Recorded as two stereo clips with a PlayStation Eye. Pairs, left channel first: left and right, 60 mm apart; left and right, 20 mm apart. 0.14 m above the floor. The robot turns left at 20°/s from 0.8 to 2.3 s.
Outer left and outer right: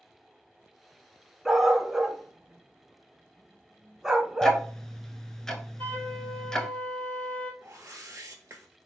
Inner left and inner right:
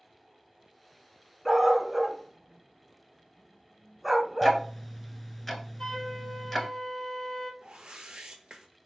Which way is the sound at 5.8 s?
35° left (ahead or behind).